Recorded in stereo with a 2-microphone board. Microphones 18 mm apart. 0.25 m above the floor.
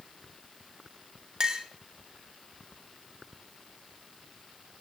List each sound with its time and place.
1.4 s a clink: 30° right (ahead or behind), 0.9 m